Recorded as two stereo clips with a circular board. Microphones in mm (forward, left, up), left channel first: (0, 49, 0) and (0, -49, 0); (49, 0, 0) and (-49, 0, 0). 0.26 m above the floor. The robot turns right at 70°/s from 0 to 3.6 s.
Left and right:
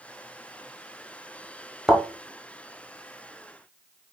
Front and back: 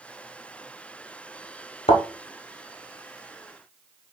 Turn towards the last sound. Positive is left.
turn(degrees=115)